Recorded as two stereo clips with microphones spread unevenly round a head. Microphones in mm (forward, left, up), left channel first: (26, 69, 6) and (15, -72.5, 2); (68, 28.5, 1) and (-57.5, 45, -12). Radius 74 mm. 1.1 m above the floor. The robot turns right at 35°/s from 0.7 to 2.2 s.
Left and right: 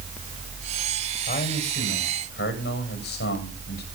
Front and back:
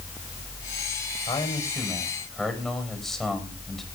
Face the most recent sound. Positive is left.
turn(degrees=80)